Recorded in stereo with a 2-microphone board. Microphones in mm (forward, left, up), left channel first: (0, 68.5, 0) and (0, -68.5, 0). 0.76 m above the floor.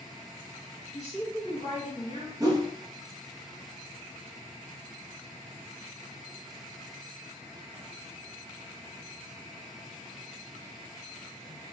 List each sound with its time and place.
0.9 s a woman speaking: 50° left (ahead or behind), 1.6 m
2.4 s a whoosh: 25° right (ahead or behind), 0.6 m